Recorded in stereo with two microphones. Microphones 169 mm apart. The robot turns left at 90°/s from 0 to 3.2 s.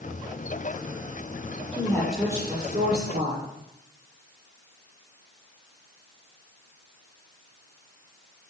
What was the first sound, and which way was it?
A woman speaking, 35° left.